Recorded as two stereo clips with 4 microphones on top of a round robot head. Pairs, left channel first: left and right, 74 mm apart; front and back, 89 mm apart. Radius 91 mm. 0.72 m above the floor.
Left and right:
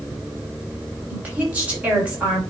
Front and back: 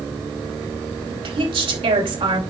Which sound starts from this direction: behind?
A woman speaking, at 1.1 s.